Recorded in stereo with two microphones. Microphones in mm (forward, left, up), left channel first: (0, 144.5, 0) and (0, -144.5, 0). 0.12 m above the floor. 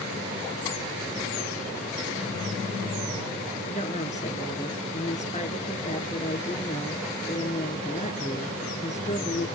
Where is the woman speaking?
25° left (ahead or behind), 1.7 m.